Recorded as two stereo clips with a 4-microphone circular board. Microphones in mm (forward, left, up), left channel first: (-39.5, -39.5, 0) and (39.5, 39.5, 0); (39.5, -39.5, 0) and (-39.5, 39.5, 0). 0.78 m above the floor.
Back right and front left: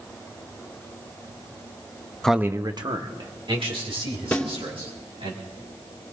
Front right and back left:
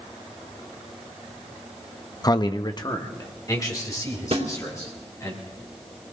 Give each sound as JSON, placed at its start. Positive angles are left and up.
{"t": 2.2, "sound": "a man speaking", "azimuth_deg": -55, "distance_m": 0.5}
{"t": 4.3, "sound": "a snare drum", "azimuth_deg": 150, "distance_m": 3.0}